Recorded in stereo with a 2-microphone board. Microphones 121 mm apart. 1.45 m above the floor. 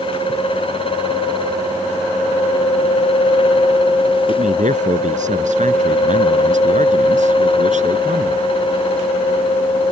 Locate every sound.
4.3 s a man speaking: 85° right; by 8.5 s 75° right (ahead or behind)